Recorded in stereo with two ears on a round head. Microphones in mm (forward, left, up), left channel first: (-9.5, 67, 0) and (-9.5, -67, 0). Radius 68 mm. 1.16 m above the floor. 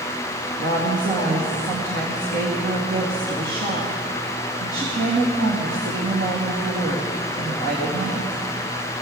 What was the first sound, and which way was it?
A woman speaking, 75° right (ahead or behind).